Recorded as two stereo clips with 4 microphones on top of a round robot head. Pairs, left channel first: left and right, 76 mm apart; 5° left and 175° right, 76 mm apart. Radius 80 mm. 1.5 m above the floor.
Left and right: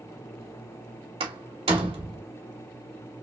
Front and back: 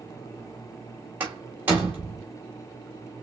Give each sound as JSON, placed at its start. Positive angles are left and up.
{"t": 1.2, "sound": "a door slam", "azimuth_deg": -100, "distance_m": 1.5}